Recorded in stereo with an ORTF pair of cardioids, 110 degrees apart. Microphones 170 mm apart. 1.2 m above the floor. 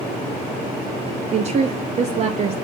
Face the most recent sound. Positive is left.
turn(degrees=-40)